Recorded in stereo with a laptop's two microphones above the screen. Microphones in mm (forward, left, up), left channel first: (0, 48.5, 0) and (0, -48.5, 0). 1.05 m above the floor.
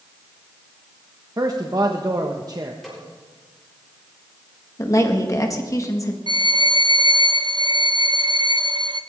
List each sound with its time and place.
1.4 s a man speaking: 40° right (ahead or behind), 1.3 m
2.8 s a snare drum: centre (ahead or behind), 4.5 m
4.8 s a woman speaking: 35° left (ahead or behind), 1.7 m
6.3 s a violin: 55° right (ahead or behind), 0.7 m